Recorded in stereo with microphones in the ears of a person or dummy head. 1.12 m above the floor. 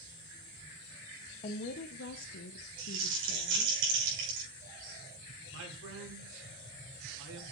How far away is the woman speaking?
About 0.7 m.